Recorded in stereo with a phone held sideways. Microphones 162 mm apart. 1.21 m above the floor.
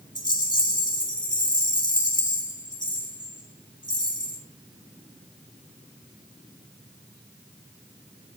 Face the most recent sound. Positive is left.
turn(degrees=25)  # may be behind; listen again after turning